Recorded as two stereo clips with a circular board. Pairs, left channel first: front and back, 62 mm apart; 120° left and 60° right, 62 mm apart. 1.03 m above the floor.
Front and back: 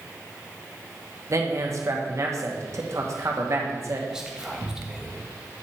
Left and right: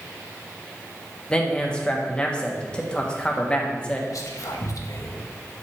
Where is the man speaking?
170° right, 1.1 m.